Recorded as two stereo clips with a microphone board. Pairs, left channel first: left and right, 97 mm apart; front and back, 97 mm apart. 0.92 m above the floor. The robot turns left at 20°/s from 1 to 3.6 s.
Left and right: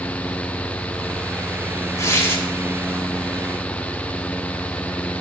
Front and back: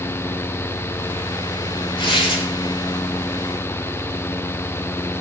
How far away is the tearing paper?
About 2.5 m.